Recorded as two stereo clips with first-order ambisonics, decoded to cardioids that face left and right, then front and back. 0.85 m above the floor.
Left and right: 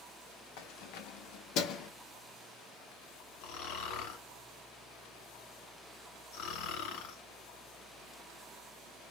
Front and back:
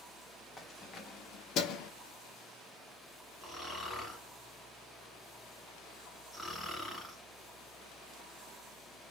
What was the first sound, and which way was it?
Keys jangling, 75° left.